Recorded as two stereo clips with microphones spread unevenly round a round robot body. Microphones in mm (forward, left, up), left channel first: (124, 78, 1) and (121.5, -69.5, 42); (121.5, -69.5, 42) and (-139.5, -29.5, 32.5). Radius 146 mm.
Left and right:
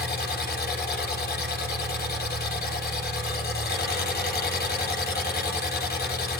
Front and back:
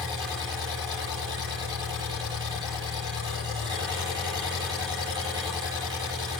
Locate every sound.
0.0 s an engine running: 95° left, 10 m